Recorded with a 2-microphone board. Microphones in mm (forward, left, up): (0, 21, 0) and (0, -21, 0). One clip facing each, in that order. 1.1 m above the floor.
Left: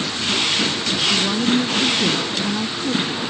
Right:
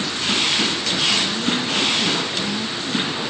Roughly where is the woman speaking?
Left.